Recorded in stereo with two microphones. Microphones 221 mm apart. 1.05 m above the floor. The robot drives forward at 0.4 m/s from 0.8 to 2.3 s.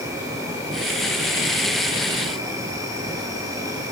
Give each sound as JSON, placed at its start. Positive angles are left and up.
{"t": 0.0, "sound": "an insect", "side_deg": -15, "distance_m": 8.0}